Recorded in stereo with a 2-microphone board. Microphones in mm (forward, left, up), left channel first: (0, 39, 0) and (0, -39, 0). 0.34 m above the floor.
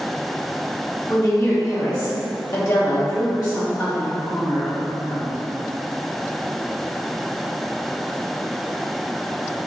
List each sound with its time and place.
1.1 s a woman speaking: 60° left (ahead or behind), 1.9 m